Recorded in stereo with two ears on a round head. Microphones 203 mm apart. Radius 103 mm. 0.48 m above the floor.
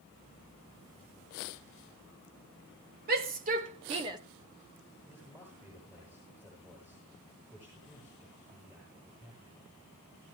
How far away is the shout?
About 1.8 m.